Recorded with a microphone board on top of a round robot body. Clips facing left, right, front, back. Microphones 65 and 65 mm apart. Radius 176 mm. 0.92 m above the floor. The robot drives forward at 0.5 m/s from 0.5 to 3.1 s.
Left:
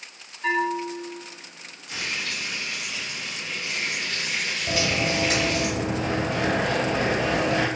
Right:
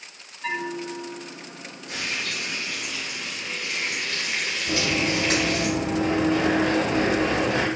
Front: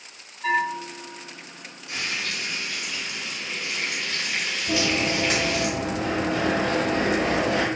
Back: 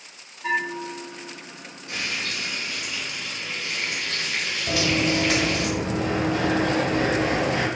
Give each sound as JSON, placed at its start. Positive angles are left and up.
{"t": 0.4, "sound": "a bell", "azimuth_deg": 0, "distance_m": 1.6}
{"t": 1.9, "sound": "frying", "azimuth_deg": -130, "distance_m": 1.8}
{"t": 4.7, "sound": "running footsteps", "azimuth_deg": 155, "distance_m": 1.8}